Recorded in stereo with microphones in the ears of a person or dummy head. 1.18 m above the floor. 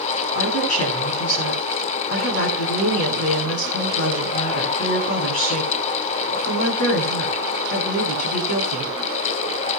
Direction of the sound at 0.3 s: 80° left.